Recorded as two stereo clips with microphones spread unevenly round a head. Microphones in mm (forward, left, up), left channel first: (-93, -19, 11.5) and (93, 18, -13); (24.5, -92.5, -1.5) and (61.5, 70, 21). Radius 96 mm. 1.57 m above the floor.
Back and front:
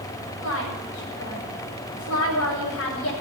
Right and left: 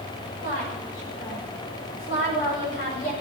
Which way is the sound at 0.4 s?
155° right.